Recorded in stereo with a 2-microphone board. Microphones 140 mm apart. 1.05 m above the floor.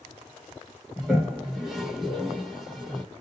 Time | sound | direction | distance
1.0 | a toilet flushing | centre (ahead or behind) | 1.2 m